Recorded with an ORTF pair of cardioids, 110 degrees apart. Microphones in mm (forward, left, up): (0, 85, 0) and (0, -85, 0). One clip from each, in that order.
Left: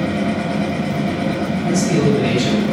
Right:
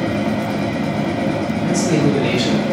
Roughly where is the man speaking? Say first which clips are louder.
Even; ahead right.